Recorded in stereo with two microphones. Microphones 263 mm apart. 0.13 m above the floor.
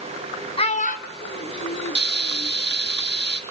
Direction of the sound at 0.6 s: 20° left (ahead or behind).